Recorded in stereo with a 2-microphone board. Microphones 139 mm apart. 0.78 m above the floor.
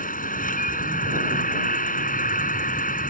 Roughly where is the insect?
Left.